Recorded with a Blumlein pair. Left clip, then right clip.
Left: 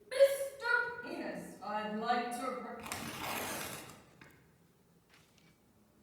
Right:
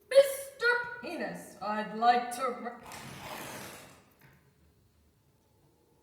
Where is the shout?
45° right, 0.6 m.